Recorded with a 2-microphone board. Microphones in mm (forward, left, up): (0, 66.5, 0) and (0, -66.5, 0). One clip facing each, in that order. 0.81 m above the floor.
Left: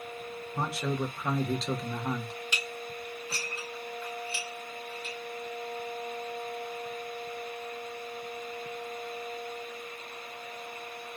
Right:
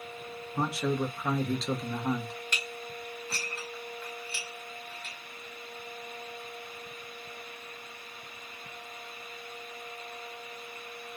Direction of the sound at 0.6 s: Centre (ahead or behind).